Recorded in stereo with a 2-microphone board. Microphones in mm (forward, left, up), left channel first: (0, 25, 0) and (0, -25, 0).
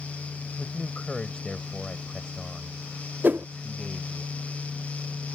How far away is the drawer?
I don't hear a drawer.